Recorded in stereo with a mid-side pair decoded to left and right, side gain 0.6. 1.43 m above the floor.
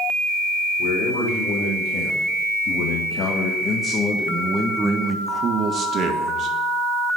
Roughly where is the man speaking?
Left.